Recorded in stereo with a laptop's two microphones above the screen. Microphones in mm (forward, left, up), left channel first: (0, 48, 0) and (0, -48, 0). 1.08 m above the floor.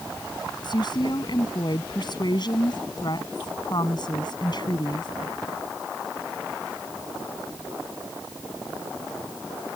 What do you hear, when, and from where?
0.6 s a woman speaking: 50° left (ahead or behind)